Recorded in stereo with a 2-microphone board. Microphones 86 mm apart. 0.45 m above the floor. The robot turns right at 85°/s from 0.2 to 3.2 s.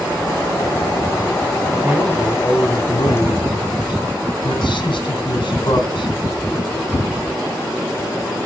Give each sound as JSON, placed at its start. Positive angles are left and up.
{"t": 1.8, "sound": "a man speaking", "azimuth_deg": -25, "distance_m": 3.0}